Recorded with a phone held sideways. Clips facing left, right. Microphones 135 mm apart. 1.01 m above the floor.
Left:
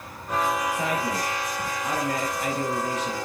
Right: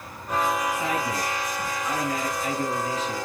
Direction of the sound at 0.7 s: 80° left.